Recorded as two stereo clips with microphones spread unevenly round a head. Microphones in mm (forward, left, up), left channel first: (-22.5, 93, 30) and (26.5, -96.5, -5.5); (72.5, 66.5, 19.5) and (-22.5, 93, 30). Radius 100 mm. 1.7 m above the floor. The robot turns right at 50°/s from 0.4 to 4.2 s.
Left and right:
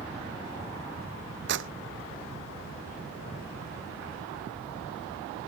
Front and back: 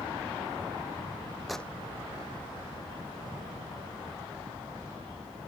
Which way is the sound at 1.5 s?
105° right.